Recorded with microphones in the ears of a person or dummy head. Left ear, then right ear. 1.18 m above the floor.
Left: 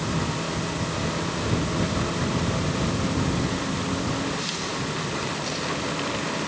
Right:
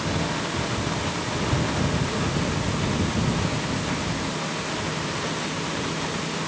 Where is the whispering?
I don't hear whispering.